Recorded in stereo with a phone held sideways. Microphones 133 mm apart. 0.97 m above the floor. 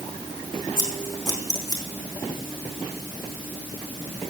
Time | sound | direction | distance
0.8 | scissors | 35° left (ahead or behind) | 3.5 m